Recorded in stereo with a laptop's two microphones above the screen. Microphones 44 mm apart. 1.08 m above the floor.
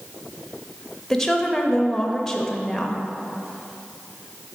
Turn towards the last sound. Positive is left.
turn(degrees=10)  # may be behind; listen again after turning